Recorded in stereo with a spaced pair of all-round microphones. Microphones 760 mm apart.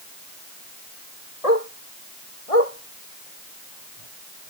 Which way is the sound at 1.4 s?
50° left (ahead or behind).